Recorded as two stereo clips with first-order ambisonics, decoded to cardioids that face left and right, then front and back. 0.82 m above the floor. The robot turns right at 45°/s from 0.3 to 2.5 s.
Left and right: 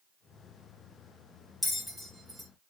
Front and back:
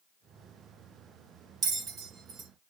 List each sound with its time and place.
1.6 s a bell: 175° left, 0.8 m; by 2.5 s 150° right, 0.8 m